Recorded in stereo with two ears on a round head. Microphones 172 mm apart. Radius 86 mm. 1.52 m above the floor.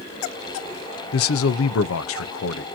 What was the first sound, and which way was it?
A man speaking, 80° left.